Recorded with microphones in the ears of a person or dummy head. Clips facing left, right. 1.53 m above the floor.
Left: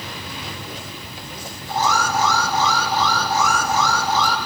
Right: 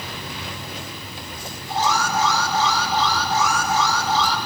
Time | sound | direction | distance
1.7 | an alarm | 50° left (ahead or behind) | 7 m